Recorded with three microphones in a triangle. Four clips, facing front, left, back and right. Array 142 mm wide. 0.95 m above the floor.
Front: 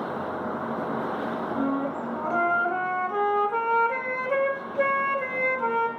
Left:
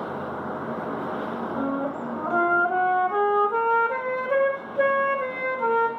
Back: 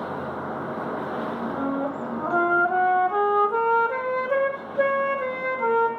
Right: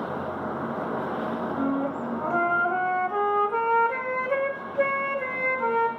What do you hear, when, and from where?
1.5 s a flute: 140° left, 0.7 m